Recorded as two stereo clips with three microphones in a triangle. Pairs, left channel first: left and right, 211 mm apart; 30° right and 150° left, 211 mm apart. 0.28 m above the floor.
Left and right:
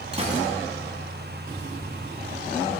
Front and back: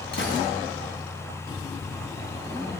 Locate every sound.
0.1 s a gunshot: 30° right, 2 m